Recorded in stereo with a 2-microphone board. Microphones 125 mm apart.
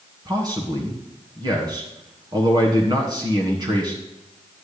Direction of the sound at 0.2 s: 35° right (ahead or behind).